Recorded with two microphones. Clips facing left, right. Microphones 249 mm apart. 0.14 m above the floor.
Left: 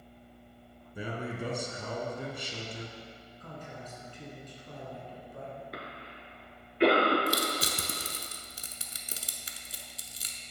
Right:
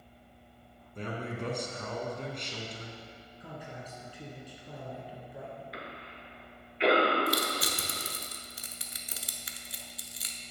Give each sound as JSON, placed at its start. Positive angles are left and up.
{"t": 0.9, "sound": "a man speaking", "side_deg": 10, "distance_m": 1.0}
{"t": 3.4, "sound": "a man speaking", "side_deg": -10, "distance_m": 1.3}
{"t": 5.7, "sound": "a cough", "side_deg": 50, "distance_m": 1.8}
{"t": 7.3, "sound": "crushing", "side_deg": 30, "distance_m": 0.7}